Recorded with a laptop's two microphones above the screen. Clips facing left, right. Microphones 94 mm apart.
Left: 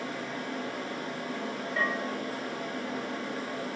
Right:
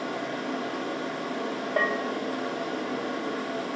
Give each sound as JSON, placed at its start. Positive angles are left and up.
{"t": 0.0, "sound": "a fan", "side_deg": -75, "distance_m": 1.5}
{"t": 1.8, "sound": "a bell", "side_deg": -60, "distance_m": 1.0}